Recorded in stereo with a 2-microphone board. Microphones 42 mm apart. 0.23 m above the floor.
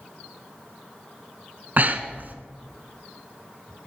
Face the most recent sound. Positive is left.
turn(degrees=-45)  # may be behind; listen again after turning